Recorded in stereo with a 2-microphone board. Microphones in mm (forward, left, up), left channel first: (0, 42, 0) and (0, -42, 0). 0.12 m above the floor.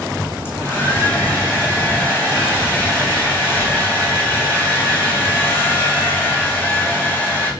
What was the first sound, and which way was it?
A hair dryer, 25° left (ahead or behind).